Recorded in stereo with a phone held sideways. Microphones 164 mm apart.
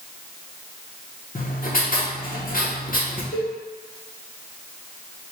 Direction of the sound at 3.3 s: 70° left (ahead or behind).